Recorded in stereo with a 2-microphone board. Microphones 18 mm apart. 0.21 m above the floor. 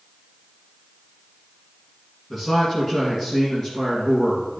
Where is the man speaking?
25° left (ahead or behind), 1.9 m.